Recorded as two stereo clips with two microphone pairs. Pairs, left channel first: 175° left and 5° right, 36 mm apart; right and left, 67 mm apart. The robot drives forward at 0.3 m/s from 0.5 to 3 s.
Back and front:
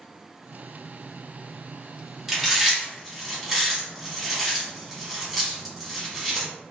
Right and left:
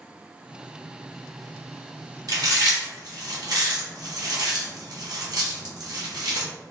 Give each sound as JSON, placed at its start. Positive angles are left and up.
{"t": 2.3, "sound": "chewing", "azimuth_deg": 75, "distance_m": 1.3}